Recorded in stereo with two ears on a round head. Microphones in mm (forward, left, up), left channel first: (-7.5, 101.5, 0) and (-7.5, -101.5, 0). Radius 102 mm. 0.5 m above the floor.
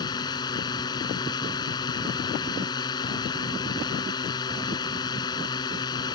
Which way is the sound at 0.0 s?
20° left (ahead or behind).